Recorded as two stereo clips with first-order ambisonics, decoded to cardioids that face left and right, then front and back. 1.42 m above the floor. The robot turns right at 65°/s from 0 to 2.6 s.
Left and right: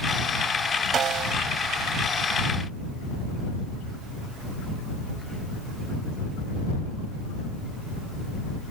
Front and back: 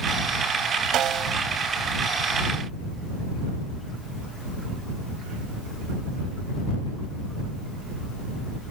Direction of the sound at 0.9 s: 145° right.